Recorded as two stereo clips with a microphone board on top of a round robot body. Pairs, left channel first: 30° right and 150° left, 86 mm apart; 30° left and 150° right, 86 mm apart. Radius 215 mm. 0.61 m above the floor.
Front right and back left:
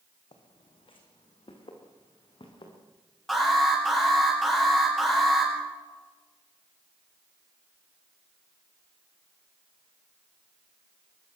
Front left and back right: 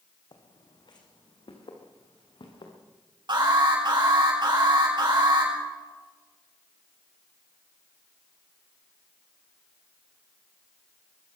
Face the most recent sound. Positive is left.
turn(degrees=-115)